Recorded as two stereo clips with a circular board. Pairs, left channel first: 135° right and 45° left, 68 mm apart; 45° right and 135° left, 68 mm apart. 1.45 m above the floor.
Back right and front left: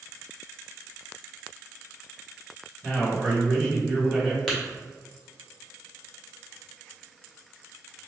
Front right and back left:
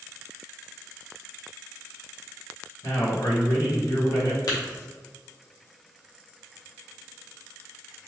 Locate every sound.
2.8 s a man speaking: 35° right, 1.0 m
4.5 s tapping: 55° right, 0.9 m